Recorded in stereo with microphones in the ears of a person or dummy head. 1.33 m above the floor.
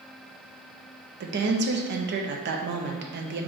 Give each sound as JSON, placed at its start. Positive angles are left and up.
{"t": 1.2, "sound": "a woman speaking", "side_deg": -55, "distance_m": 0.6}